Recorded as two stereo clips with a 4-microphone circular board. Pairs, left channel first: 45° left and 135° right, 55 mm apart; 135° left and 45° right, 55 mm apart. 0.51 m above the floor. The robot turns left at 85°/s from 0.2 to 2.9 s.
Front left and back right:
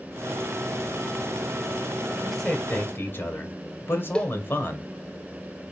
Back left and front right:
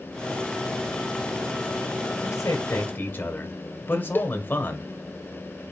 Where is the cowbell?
110° left, 0.6 m.